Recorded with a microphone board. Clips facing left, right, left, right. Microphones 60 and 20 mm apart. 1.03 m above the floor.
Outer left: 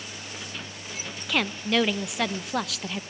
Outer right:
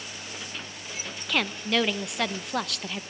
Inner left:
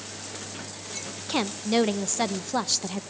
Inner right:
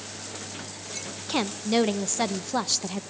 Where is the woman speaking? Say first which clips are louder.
Outer left 1 dB, even; centre (ahead or behind), 0.7 m.